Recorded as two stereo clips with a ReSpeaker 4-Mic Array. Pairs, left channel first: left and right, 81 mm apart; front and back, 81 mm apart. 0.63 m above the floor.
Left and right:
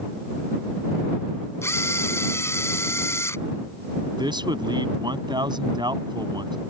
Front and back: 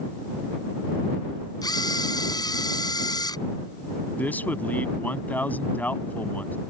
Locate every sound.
1.6 s a camera shutter: 35° left
4.2 s a man speaking: 70° right